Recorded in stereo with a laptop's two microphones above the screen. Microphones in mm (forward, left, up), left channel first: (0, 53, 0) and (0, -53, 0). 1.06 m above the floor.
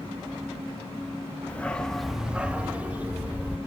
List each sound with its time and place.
1.5 s a dog barking: 15° left (ahead or behind), 0.7 m; by 3.6 s 15° right (ahead or behind), 1.6 m